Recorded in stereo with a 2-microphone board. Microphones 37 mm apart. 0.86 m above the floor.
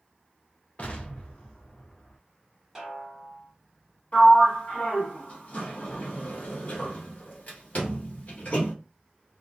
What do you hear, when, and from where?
0.8 s an explosion: 50° left (ahead or behind), 0.5 m
2.8 s a snare drum: 5° right (ahead or behind), 1.2 m
4.1 s a sliding door: 50° left (ahead or behind), 1.1 m